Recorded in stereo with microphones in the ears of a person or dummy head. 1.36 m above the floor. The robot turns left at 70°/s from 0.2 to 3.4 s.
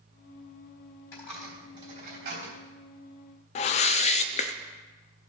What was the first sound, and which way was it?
A dropped coin, 20° left (ahead or behind).